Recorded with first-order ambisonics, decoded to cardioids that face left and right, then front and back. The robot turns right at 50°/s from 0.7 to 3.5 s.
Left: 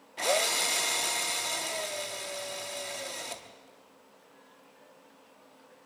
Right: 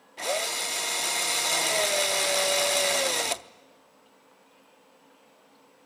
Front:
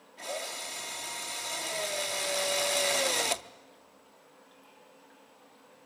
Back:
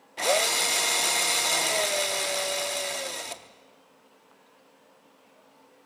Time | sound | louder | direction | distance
0.2 | a drill | left 2 dB, back 13 dB | 175° left | 0.6 m